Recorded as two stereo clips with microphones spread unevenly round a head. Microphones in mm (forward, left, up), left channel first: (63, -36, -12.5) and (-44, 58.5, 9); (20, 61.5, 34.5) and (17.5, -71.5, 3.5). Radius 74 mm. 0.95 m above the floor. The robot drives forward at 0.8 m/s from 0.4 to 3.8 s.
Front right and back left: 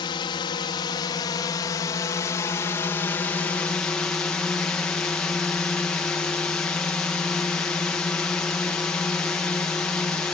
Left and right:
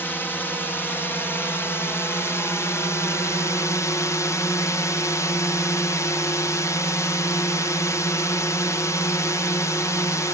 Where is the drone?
5° left; by 10.3 s 15° left.